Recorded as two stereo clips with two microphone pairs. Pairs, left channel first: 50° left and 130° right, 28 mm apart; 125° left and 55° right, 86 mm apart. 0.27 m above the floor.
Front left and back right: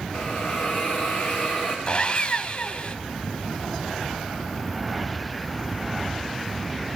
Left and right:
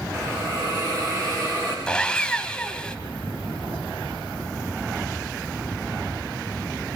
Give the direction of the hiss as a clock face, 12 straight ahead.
12 o'clock.